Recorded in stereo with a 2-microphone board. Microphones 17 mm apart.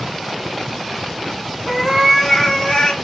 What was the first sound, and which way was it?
A cat meowing, centre (ahead or behind).